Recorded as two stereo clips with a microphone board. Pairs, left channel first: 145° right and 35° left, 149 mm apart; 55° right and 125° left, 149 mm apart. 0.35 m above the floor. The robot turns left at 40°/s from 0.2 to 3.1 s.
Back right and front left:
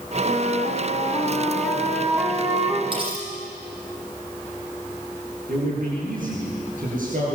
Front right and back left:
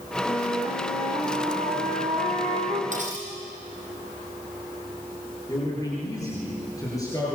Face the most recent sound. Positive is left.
turn(degrees=10)